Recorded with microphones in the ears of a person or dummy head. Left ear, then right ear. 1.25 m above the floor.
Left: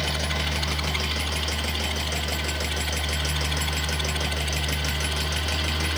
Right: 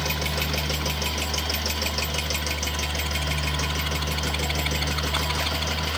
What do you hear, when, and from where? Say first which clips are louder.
0.0 s a fan: even; 10° left (ahead or behind), 1.0 m